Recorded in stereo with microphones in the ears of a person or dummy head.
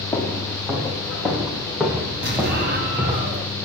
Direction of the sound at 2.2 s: 55° right (ahead or behind).